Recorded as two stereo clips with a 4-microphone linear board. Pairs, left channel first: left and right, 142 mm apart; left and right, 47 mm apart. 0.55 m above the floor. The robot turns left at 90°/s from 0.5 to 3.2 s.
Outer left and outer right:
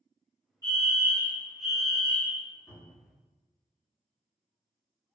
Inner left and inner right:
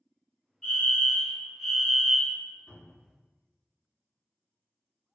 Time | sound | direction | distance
0.6 | a fire alarm | 20° left (ahead or behind) | 1.6 m
2.7 | a cupboard door | 25° left (ahead or behind) | 1.4 m